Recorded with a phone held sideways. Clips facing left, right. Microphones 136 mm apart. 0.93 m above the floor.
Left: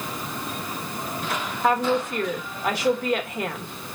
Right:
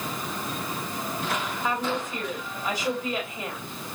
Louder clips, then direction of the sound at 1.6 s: Left 9 dB; 70° left (ahead or behind).